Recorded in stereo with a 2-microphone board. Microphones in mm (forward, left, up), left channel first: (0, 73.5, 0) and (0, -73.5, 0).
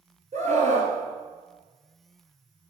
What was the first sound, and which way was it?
A scream, 50° right (ahead or behind).